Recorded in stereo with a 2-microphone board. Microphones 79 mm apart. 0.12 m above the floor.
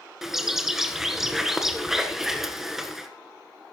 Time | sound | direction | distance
0.2 | a bird | 5° right (ahead or behind) | 1.4 m